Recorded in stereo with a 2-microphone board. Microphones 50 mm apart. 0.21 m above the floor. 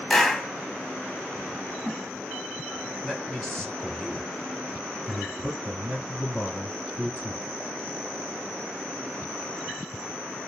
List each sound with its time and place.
0.1 s a clap: 5° left (ahead or behind), 0.8 m
3.0 s a man speaking: 5° left (ahead or behind), 1.3 m